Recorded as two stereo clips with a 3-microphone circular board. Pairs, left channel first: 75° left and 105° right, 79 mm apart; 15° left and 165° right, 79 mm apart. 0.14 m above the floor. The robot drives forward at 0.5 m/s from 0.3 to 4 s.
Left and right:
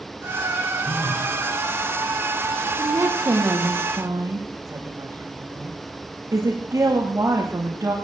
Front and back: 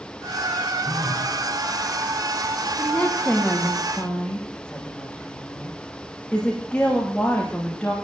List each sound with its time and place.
0.8 s a phone buzzing: 110° left, 7.5 m
2.8 s a woman speaking: 55° right, 10 m; by 8.0 s 60° right, 9.5 m